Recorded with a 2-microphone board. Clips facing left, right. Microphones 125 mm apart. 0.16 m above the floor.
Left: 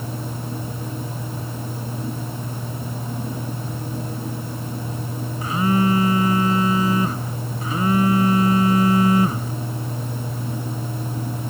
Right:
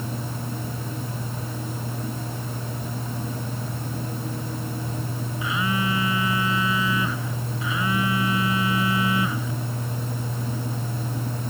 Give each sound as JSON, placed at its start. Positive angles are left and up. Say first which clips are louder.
{"t": 5.4, "sound": "a phone buzzing", "louder": "left 7 dB", "side_deg": 45}